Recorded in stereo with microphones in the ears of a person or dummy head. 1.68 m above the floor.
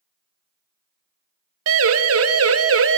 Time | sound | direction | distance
1.7 | a siren | 70° right (ahead or behind) | 2 m